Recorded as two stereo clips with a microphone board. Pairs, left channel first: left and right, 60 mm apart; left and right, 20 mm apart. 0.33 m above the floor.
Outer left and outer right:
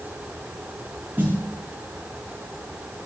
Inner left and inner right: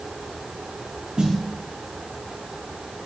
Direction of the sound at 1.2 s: 35° right (ahead or behind).